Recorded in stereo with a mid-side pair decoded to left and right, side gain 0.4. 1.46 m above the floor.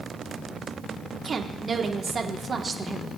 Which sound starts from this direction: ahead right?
A woman speaking, at 1.2 s.